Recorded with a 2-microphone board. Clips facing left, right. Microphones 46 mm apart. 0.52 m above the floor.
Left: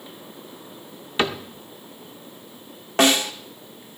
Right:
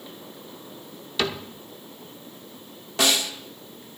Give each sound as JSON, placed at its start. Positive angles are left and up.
{"t": 1.2, "sound": "a cupboard door", "side_deg": 30, "distance_m": 0.8}
{"t": 3.0, "sound": "a snare drum", "side_deg": 40, "distance_m": 0.9}